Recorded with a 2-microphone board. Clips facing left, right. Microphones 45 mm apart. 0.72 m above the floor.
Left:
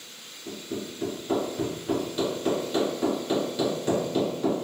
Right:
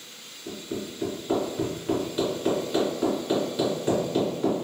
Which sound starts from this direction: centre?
Hammering, at 0.5 s.